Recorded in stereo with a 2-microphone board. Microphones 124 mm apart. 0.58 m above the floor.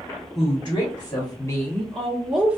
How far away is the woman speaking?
About 1.5 m.